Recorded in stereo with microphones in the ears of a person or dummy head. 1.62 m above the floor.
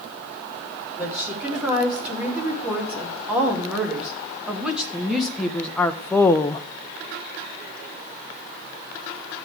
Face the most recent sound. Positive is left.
turn(degrees=25)  # may be behind; listen again after turning